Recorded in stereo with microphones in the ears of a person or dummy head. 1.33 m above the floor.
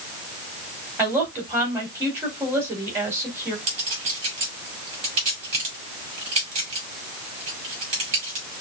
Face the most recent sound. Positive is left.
turn(degrees=-35)  # may be behind; listen again after turning